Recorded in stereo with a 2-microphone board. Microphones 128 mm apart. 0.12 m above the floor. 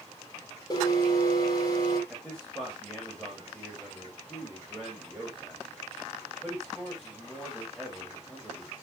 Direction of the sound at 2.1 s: 5° left (ahead or behind).